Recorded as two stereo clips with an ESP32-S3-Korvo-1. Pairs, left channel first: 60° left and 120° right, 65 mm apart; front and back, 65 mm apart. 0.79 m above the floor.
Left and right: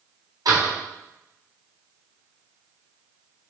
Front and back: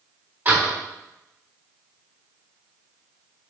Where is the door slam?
115° right, 3.5 m.